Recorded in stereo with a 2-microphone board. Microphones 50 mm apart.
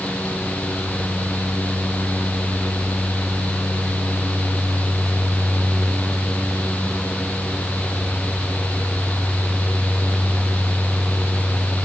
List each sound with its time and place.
Only background noise.